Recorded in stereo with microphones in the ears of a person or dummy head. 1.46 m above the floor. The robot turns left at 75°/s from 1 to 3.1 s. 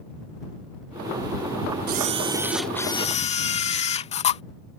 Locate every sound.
1.9 s a camera shutter: 125° right; by 4.4 s 145° left